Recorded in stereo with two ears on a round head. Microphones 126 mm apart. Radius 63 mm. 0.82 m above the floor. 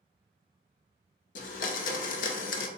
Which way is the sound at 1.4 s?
60° left (ahead or behind).